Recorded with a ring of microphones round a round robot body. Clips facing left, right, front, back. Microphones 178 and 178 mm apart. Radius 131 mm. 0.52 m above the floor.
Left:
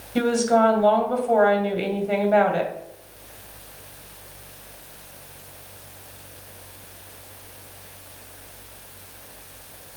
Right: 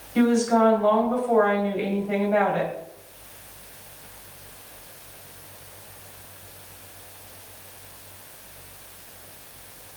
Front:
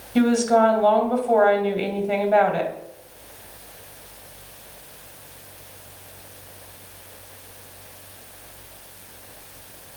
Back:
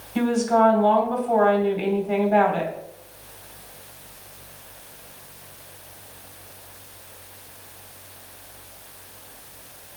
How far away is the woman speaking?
About 3 m.